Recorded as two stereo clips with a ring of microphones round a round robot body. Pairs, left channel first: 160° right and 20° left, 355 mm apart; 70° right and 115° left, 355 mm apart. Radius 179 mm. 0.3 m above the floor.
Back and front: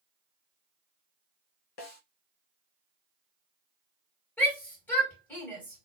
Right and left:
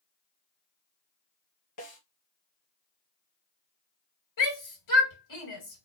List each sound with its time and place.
1.8 s a snare drum: 110° right, 2.0 m
4.4 s a shout: 75° right, 2.5 m